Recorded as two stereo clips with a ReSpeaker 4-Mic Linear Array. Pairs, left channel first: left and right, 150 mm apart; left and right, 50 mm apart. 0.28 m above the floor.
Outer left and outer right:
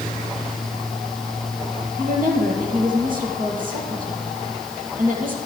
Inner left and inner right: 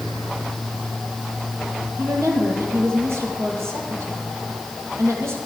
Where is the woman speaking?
65° right (ahead or behind), 7.5 m.